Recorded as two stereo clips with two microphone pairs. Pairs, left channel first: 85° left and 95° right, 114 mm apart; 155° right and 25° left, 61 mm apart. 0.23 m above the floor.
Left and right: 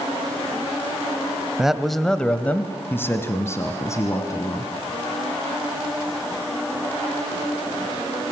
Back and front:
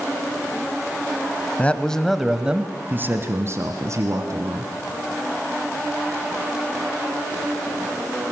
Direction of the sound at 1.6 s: 170° right.